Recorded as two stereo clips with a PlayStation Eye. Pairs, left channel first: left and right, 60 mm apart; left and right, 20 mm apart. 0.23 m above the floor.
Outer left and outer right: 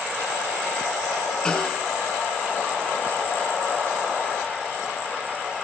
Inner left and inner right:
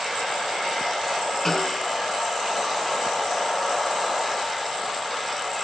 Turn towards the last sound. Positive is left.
turn(degrees=15)  # may be behind; listen again after turning